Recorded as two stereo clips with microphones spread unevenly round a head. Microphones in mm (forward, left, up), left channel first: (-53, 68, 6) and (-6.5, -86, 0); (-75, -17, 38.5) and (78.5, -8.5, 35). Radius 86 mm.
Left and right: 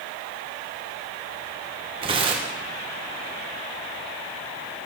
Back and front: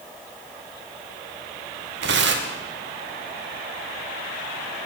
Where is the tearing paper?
10° right, 1.6 m.